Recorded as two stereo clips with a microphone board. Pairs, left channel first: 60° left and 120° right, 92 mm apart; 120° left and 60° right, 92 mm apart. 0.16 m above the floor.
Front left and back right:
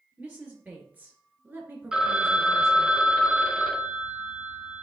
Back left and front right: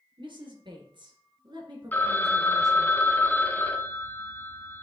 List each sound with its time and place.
0.2 s a woman speaking: 50° right, 2.5 m; by 2.9 s 75° right, 1.3 m
1.9 s a phone ringing: 165° left, 0.7 m